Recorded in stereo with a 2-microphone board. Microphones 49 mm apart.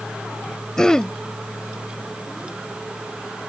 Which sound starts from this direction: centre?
Throat clearing, at 0.8 s.